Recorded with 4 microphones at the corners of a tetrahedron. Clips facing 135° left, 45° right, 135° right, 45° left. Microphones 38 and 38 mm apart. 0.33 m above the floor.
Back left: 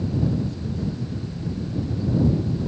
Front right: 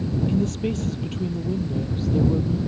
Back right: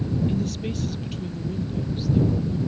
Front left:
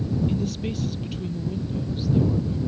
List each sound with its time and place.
0.3 s a woman speaking: 40° right